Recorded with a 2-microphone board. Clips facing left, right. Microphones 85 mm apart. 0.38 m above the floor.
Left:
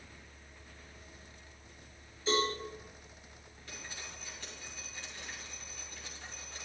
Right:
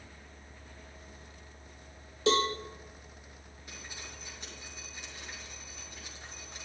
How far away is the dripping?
About 5 m.